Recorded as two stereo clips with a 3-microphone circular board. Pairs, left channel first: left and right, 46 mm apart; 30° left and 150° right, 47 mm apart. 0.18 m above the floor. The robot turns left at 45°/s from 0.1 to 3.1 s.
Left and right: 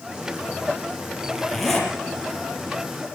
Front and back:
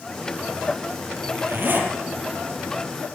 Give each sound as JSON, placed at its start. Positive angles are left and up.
{"t": 1.2, "sound": "a zipper", "azimuth_deg": -160, "distance_m": 6.0}